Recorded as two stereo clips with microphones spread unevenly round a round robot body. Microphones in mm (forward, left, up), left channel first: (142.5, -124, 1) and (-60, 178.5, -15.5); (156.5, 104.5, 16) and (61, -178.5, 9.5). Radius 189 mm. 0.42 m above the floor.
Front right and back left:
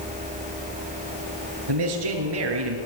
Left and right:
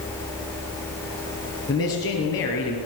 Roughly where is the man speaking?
Behind left.